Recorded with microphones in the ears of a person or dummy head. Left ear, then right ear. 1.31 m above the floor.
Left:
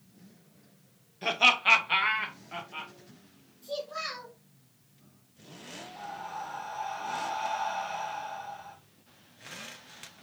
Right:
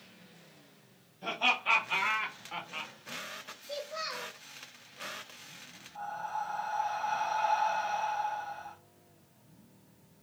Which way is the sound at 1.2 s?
60° left (ahead or behind).